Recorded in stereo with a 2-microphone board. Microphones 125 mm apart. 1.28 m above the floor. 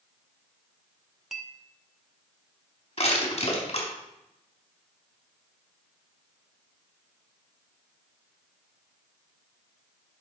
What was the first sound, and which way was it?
A clink, centre (ahead or behind).